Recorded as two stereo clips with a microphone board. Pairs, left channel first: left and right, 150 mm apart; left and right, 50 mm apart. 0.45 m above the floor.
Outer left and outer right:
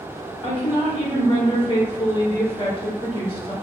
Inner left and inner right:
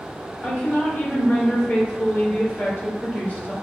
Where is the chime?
I don't hear a chime.